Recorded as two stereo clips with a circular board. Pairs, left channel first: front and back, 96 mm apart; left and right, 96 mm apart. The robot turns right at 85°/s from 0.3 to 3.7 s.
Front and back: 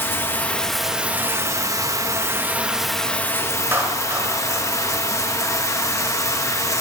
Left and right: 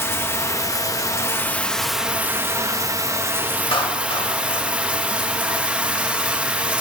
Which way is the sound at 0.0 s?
45° left.